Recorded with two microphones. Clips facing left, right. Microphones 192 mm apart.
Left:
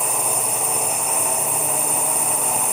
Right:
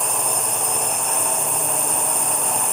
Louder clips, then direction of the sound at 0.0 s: Even; 5° left (ahead or behind).